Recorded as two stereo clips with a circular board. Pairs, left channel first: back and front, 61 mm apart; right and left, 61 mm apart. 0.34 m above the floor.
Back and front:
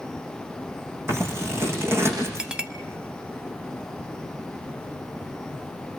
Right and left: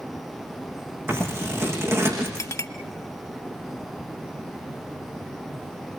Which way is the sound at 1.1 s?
45° left.